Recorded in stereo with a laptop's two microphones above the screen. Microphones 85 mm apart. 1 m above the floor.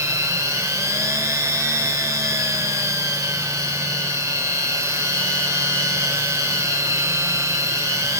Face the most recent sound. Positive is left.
turn(degrees=-40)  # may be behind; listen again after turning